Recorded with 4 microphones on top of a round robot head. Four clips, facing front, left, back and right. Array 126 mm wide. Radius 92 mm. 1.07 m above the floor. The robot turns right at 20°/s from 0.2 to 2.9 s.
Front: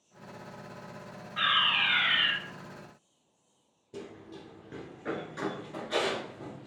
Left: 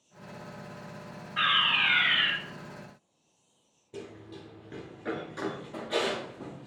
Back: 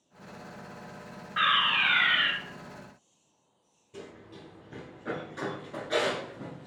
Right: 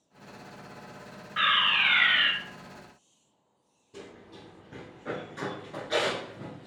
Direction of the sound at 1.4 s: 150° right.